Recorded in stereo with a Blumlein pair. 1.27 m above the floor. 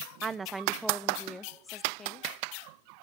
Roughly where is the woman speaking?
Ahead.